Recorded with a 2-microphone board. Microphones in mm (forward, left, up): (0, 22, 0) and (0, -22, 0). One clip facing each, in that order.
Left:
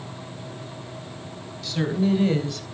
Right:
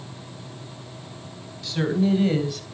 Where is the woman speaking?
5° right (ahead or behind), 3.5 m; by 2.7 s 10° right (ahead or behind), 2.5 m.